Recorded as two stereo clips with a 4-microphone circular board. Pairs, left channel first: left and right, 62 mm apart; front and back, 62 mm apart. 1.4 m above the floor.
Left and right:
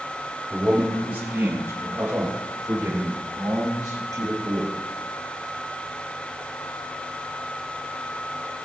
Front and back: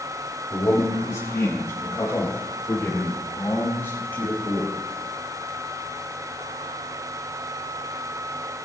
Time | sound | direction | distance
0.5 | a man speaking | 20° right | 3 m